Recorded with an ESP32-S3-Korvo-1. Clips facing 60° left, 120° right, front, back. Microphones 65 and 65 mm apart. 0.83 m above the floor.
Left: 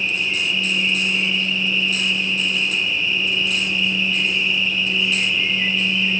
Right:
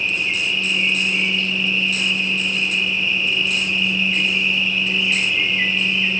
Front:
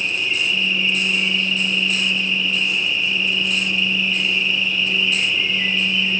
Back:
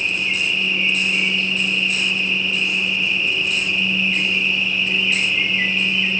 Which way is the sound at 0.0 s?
145° right.